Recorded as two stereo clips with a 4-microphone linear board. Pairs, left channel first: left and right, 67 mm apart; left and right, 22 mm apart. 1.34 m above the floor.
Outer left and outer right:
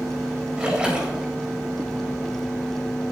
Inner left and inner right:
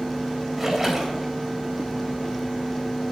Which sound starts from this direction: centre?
A splash, at 0.6 s.